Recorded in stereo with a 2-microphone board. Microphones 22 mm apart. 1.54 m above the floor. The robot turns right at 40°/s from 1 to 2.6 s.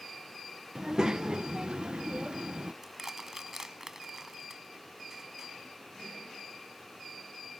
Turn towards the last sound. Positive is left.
turn(degrees=-25)  # may be behind; listen again after turning